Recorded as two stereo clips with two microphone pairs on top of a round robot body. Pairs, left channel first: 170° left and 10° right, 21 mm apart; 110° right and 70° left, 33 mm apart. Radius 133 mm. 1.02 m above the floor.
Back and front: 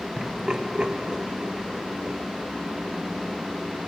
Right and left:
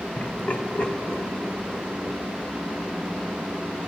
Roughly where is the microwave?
No microwave in this recording.